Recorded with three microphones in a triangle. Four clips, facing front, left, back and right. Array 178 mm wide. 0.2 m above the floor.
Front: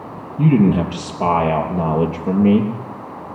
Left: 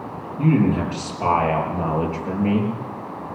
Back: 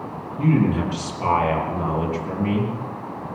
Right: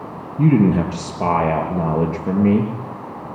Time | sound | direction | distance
0.4 | a man speaking | 45° right | 6 m